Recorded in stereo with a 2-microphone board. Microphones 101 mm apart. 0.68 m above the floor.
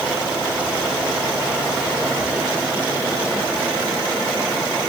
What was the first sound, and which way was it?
Only background noise.